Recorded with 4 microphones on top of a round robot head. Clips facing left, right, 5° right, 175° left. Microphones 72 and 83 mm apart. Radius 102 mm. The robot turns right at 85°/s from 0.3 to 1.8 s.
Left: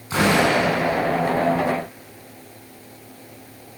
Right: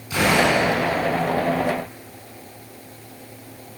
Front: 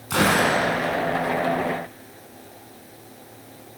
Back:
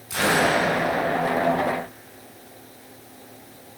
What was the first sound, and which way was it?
A gunshot, 30° left.